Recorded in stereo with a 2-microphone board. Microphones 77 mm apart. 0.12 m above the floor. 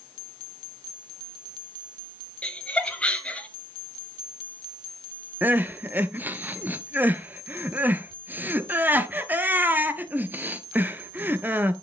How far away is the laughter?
About 1.7 m.